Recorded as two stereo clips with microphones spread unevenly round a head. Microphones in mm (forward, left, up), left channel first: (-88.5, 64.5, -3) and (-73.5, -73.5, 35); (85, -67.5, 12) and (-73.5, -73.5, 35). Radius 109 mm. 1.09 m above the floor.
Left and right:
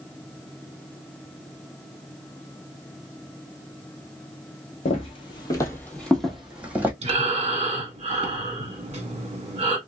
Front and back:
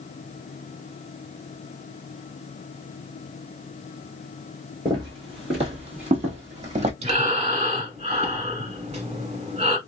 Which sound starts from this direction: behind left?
Footsteps, at 4.8 s.